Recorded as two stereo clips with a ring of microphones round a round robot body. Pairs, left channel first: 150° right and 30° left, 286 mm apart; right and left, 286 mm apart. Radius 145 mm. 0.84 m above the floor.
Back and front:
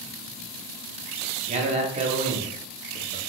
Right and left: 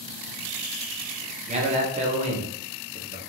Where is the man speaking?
65° left, 0.6 m.